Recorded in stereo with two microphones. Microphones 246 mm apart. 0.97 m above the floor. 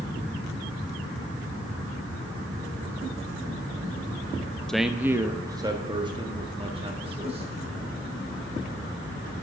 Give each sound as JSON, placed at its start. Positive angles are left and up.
{"t": 4.7, "sound": "a man speaking", "side_deg": 5, "distance_m": 0.5}